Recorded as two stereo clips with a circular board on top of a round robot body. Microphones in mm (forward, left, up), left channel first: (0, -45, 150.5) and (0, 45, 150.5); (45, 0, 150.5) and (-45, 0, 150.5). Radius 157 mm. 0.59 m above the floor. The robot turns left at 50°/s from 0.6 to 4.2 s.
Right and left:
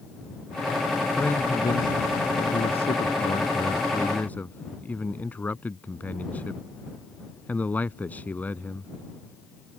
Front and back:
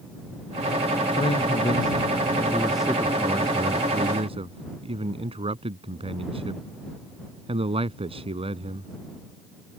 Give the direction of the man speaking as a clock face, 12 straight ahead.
12 o'clock.